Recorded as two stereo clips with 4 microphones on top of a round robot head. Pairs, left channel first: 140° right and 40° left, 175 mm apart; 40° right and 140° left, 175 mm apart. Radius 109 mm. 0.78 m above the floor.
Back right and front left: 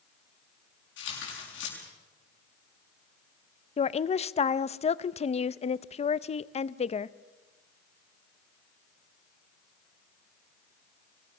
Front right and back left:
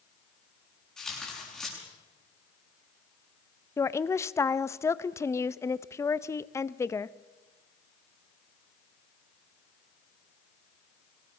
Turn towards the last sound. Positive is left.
turn(degrees=-110)